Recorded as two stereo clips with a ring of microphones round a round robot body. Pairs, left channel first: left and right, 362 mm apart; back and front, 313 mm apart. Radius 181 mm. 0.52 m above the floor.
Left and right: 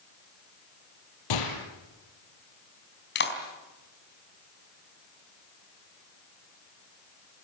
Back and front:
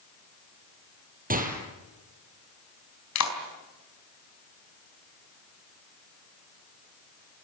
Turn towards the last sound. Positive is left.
turn(degrees=150)